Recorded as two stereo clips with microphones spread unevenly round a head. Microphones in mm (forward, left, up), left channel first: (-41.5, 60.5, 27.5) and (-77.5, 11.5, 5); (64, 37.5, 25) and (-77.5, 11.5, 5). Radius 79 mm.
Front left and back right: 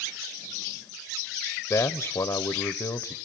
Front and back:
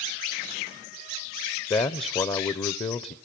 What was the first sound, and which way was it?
A man speaking, 60° left.